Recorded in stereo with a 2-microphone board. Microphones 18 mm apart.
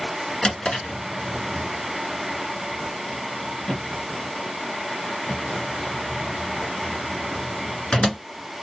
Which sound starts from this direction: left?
A drawer, at 0.4 s.